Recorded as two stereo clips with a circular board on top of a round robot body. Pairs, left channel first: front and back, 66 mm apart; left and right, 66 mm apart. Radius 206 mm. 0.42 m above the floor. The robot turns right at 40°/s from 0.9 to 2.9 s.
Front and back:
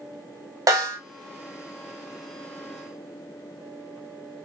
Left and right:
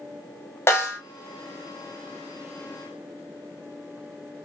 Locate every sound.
0.7 s a snare drum: 140° left, 0.8 m; by 1.0 s 145° left, 0.8 m